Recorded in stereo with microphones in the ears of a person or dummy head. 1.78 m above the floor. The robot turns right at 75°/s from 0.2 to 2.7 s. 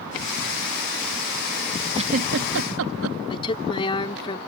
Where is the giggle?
25° right (ahead or behind); by 3.2 s 70° right (ahead or behind).